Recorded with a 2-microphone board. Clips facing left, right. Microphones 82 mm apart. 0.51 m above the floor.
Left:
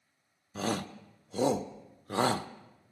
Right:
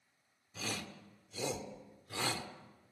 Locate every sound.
0.6 s a shout: 45° left (ahead or behind), 1.0 m